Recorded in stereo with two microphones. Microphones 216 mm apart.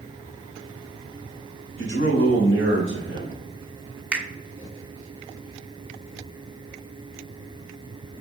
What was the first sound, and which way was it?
A man speaking, 75° right (ahead or behind).